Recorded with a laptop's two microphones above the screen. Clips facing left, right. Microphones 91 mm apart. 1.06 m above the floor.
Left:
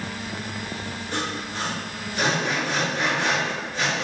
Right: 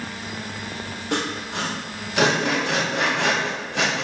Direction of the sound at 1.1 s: 75° right (ahead or behind).